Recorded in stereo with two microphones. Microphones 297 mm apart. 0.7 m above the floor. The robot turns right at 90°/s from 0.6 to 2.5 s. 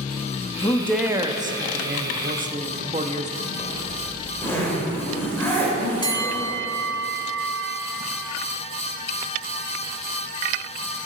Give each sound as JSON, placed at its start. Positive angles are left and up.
{"t": 0.6, "sound": "a man speaking", "side_deg": 20, "distance_m": 0.6}
{"t": 3.6, "sound": "a zipper", "side_deg": 10, "distance_m": 3.5}
{"t": 6.0, "sound": "a bell", "side_deg": 15, "distance_m": 1.0}